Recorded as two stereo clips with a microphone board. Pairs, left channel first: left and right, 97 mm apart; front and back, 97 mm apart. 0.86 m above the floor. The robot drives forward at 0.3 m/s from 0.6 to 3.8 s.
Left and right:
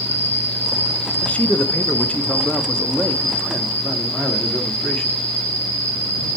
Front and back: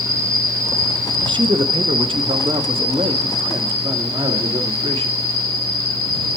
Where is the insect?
145° left, 1.4 m; by 6.4 s 165° left, 2 m.